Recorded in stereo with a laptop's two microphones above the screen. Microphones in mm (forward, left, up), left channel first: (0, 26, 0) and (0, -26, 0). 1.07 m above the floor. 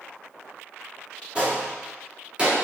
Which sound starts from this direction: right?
A gunshot, at 1.4 s.